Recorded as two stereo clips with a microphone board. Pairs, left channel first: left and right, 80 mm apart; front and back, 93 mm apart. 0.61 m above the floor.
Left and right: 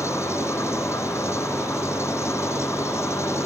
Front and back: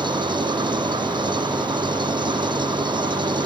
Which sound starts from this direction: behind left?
An engine running, at 0.0 s.